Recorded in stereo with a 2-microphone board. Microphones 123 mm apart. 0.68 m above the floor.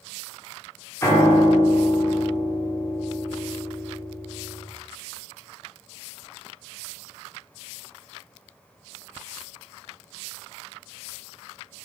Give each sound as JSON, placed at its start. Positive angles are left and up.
{"t": 1.0, "sound": "a piano", "side_deg": 25, "distance_m": 1.4}